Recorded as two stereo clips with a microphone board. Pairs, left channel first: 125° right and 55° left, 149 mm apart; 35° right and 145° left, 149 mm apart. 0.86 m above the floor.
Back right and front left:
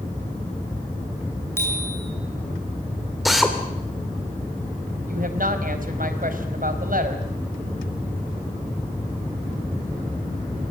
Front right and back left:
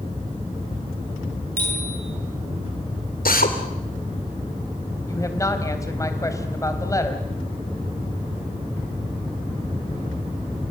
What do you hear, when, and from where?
1.6 s a bicycle bell: 160° left, 9.5 m
3.2 s a drill: 35° right, 3.5 m
5.1 s a woman speaking: 35° left, 4 m